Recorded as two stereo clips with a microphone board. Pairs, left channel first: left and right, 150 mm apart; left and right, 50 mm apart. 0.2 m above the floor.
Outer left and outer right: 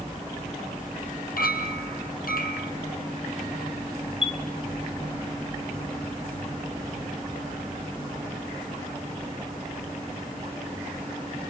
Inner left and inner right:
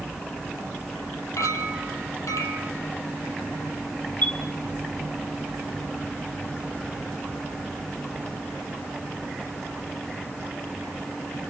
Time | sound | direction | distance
1.4 | a clink | 75° left (ahead or behind) | 4 m
4.2 | a chime | 40° left (ahead or behind) | 1.7 m